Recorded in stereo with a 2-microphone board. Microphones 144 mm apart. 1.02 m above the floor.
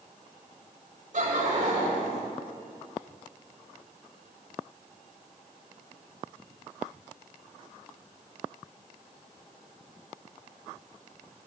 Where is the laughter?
60° right (ahead or behind), 3 m.